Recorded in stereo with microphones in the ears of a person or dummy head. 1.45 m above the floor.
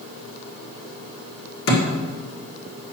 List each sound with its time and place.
1.7 s a thud: 65° left (ahead or behind), 1.7 m